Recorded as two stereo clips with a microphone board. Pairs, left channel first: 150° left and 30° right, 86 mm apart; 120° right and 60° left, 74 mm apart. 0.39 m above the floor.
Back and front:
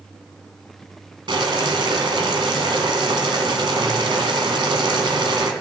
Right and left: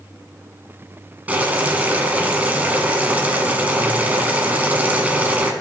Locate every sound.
1.3 s boiling: 10° right, 1.0 m